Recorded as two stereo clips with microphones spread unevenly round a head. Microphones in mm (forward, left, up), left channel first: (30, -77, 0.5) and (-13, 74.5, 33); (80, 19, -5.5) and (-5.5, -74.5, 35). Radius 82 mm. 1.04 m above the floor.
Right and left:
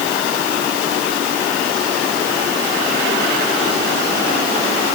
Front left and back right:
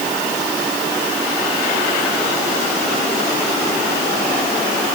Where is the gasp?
I don't hear a gasp.